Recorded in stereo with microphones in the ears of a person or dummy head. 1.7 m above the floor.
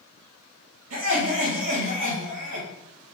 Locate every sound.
0.9 s laughter: 70° right (ahead or behind), 4 m